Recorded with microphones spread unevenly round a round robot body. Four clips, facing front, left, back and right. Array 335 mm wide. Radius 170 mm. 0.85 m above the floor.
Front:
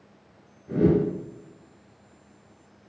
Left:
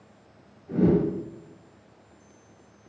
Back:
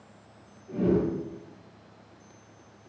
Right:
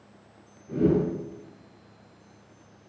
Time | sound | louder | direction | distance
0.7 | a whoosh | left 1 dB, front 4 dB | straight ahead | 4.5 m